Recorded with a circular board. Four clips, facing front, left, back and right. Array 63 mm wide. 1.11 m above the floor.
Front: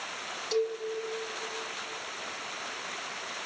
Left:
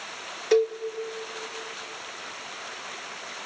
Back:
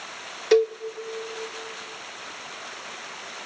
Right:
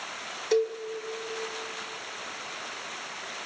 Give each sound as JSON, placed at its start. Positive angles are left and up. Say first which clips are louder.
{"t": 0.5, "sound": "a cowbell", "louder": "left 4 dB, back 10 dB", "azimuth_deg": 165, "distance_m": 1.5}